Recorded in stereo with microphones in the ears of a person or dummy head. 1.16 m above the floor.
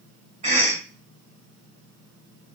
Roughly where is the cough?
Right.